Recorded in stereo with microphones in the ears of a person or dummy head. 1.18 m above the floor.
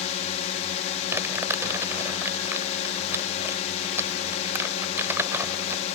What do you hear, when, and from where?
0.0 s a drone: 40° left (ahead or behind)
1.1 s crumpling: 5° right (ahead or behind)